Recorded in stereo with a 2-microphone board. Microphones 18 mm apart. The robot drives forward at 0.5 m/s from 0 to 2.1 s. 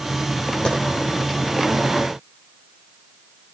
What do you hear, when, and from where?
0.7 s a clap: 55° left (ahead or behind), 5.5 m